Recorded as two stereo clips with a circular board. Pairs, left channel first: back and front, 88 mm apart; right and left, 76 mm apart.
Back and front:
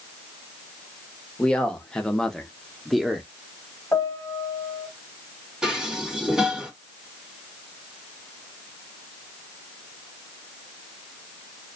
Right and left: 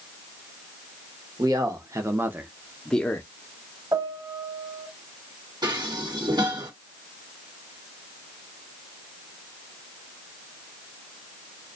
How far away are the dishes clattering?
About 1.0 m.